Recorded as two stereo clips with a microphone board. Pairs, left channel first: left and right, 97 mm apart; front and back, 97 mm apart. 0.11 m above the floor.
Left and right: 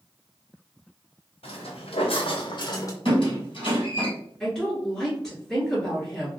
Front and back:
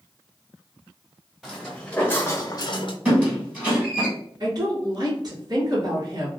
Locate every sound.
1.4 s footsteps: 90° left, 1.4 m; by 3.0 s 30° left, 0.8 m
3.0 s a squeak: 105° left, 1.8 m
4.4 s a woman speaking: 175° left, 1.8 m